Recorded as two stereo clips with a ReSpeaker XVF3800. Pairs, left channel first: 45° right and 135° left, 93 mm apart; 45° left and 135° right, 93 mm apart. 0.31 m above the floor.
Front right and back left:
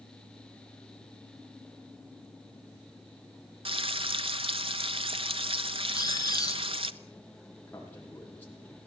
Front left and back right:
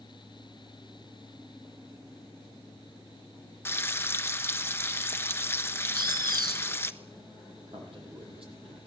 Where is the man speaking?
115° right, 9.5 m.